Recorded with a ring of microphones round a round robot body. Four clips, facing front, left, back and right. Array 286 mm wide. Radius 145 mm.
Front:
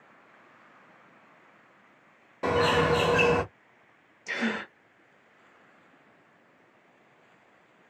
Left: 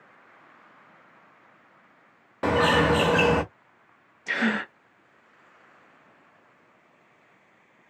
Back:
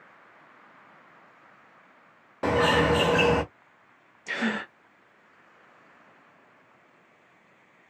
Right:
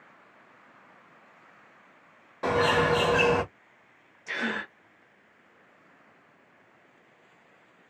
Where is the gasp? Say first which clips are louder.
Left 6 dB, back 1 dB; 100° left, 0.6 m.